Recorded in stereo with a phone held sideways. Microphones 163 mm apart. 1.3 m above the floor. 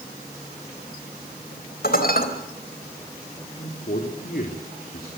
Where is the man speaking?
65° left (ahead or behind), 3.5 m.